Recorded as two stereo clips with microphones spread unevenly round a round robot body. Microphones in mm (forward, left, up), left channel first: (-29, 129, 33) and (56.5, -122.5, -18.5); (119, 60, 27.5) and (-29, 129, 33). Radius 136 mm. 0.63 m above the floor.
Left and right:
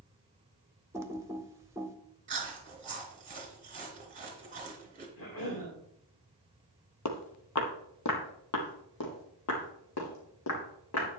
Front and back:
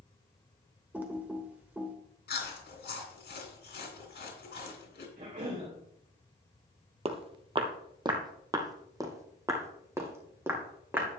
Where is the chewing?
10° right, 3 m.